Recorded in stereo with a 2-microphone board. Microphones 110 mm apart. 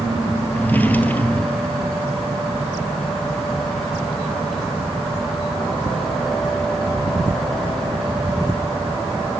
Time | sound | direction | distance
0.5 | a drawer | 15° left (ahead or behind) | 2 m